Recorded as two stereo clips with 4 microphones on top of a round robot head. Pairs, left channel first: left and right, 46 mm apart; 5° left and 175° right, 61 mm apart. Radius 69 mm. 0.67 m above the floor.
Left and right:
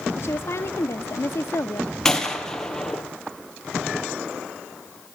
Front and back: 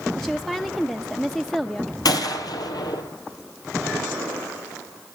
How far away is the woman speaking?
About 1.1 m.